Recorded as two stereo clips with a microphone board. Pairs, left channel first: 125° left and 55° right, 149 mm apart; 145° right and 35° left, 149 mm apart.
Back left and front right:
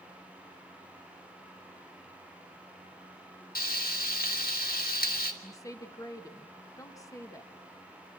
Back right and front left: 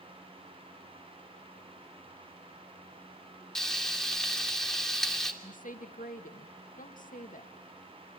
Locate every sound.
3.5 s frying: 130° left, 2.5 m
5.4 s a woman speaking: 170° right, 2 m